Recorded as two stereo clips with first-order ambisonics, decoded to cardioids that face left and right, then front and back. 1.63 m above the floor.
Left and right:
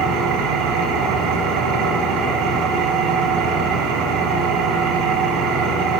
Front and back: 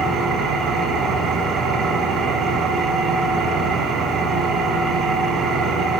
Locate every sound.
0.0 s an engine running: 120° right, 4 m